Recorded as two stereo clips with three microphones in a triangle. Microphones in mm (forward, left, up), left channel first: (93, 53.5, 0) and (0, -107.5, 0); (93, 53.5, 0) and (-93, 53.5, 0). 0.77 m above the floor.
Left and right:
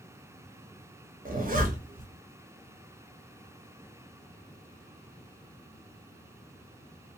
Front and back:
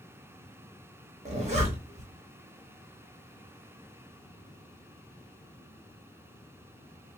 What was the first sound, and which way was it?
A zipper, 140° right.